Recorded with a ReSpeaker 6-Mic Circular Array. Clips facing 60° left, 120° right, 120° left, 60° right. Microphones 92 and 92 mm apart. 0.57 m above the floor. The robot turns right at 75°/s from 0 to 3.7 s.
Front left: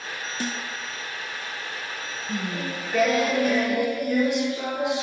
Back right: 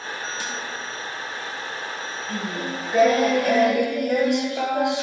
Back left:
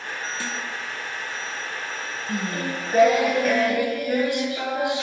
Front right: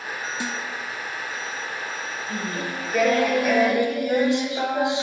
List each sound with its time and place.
0.4 s a snare drum: 10° left, 0.7 m; by 0.6 s 25° left, 0.7 m
2.3 s singing: 125° left, 1.7 m; by 5.0 s 130° right, 1.7 m